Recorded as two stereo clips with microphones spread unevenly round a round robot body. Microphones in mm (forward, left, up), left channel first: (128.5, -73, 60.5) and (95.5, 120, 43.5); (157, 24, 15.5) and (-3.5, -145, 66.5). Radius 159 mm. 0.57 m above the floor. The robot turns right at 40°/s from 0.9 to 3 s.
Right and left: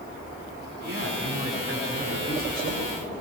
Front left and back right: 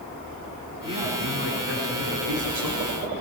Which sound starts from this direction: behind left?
A man speaking, at 0.8 s.